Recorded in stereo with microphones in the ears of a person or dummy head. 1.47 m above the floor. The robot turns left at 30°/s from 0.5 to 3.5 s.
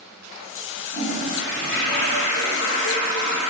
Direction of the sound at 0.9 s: 150° left.